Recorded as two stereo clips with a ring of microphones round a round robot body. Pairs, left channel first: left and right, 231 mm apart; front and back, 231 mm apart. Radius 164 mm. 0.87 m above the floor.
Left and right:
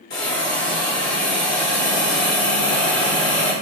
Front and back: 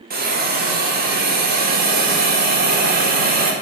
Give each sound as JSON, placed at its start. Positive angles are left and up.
{"t": 0.1, "sound": "a hiss", "azimuth_deg": 135, "distance_m": 0.8}